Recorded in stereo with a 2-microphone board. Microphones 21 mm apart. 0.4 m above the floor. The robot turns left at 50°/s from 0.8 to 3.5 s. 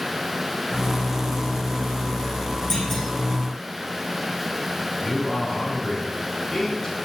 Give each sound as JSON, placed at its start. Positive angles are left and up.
{"t": 2.7, "sound": "a clunk", "side_deg": 30, "distance_m": 7.5}
{"t": 5.0, "sound": "a man speaking", "side_deg": 25, "distance_m": 4.5}